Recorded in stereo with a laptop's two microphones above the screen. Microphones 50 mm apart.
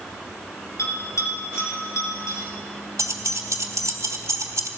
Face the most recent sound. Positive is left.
turn(degrees=-80)